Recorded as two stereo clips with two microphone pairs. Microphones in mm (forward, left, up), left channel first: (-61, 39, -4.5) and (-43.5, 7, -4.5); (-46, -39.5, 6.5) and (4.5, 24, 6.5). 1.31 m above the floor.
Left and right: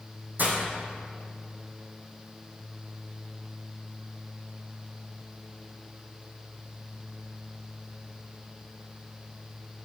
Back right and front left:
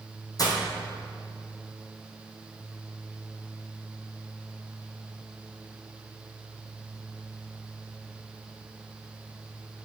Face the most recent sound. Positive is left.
turn(degrees=-95)